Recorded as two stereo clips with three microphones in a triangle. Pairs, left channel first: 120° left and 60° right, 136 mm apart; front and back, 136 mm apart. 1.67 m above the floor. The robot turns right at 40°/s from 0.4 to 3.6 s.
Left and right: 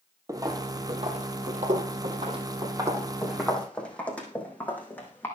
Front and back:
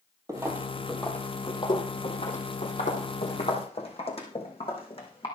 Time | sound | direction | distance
0.3 | footsteps | 120° right | 2.5 m